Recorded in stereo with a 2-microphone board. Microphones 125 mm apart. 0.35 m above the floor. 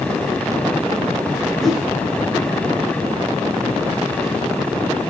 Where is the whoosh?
Centre (ahead or behind), 1.2 m.